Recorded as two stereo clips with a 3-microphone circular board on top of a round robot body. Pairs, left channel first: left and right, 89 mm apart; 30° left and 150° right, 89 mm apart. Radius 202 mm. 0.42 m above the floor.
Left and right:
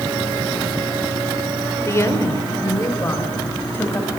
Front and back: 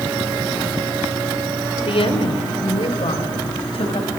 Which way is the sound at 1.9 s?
35° left.